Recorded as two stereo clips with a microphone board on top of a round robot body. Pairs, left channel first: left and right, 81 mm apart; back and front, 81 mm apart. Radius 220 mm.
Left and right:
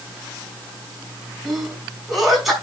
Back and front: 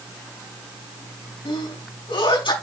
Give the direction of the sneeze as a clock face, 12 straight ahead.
6 o'clock.